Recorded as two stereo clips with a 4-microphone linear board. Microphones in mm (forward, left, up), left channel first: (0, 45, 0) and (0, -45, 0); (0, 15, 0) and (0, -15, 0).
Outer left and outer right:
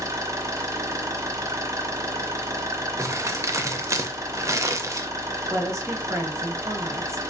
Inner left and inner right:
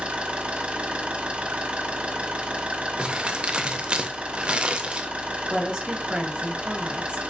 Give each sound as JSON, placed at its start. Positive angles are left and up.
{"t": 0.0, "sound": "an engine running", "side_deg": -35, "distance_m": 0.8}
{"t": 3.0, "sound": "crumpling", "side_deg": -35, "distance_m": 0.6}
{"t": 5.5, "sound": "a woman speaking", "side_deg": -30, "distance_m": 1.5}